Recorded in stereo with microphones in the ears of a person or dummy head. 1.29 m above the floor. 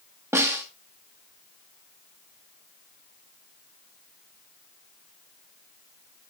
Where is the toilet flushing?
I don't hear a toilet flushing.